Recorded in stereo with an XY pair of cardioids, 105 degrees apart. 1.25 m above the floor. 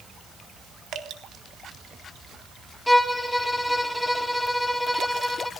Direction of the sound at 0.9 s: 65° right.